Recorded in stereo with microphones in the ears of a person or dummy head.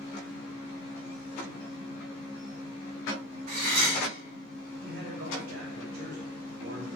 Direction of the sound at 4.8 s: 50° right (ahead or behind).